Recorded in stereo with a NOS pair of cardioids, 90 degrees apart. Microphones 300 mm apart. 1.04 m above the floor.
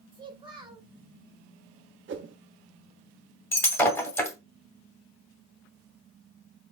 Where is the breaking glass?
10° left, 2 m.